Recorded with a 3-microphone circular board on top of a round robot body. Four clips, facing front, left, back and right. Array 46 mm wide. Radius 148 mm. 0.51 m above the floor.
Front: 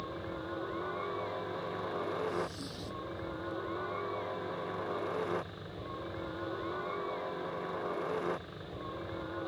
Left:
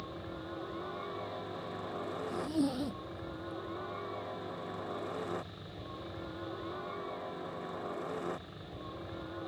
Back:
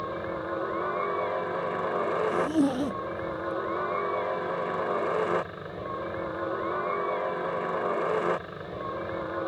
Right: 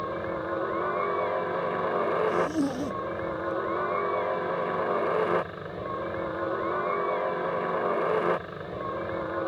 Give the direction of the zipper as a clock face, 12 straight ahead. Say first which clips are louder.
Right 7 dB, back 13 dB; 6 o'clock.